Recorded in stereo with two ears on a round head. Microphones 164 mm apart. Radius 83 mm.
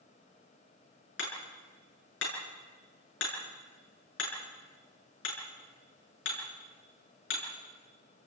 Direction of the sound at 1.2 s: 70° left (ahead or behind).